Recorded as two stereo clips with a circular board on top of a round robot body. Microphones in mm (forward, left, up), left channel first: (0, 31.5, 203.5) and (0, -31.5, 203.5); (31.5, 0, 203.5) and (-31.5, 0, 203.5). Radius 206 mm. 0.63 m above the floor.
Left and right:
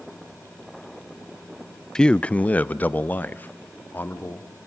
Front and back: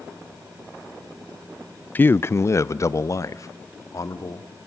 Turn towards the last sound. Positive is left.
turn(degrees=30)